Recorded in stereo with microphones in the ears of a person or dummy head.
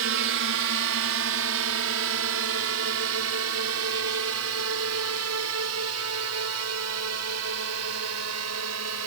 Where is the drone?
60° right (ahead or behind); by 9.1 s 75° right (ahead or behind).